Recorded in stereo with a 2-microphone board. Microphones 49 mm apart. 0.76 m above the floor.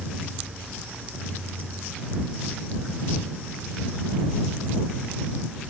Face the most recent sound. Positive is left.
No sound to turn to.